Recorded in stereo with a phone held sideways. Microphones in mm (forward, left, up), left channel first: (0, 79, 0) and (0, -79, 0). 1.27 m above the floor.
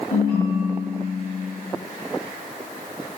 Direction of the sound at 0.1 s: 65° left (ahead or behind).